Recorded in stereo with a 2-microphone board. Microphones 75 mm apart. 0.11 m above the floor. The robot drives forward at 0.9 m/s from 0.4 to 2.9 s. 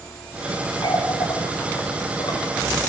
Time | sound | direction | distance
0.8 | a running tap | 70° left (ahead or behind) | 9 m